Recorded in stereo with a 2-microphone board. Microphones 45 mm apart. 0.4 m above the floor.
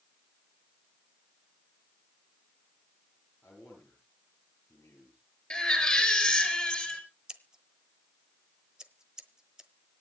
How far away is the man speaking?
About 10 m.